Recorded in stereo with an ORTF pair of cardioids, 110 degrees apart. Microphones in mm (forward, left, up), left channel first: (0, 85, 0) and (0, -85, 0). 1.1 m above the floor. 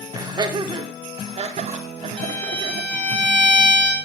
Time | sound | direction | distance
0.1 | laughter | 25° right | 3 m
2.2 | a violin | 5° left | 4.5 m